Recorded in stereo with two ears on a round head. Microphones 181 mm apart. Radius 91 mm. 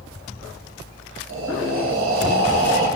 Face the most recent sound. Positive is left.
turn(degrees=-70)  # may be behind; listen again after turning